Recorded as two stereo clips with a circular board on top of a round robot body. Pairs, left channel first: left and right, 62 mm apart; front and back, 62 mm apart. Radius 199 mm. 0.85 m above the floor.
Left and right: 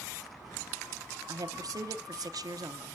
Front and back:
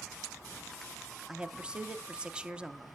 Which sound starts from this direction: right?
A woman speaking, at 1.3 s.